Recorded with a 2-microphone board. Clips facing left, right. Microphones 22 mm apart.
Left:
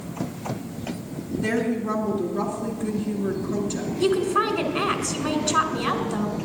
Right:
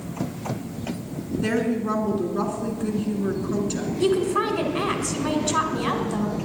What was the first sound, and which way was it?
A woman speaking, 30° right (ahead or behind).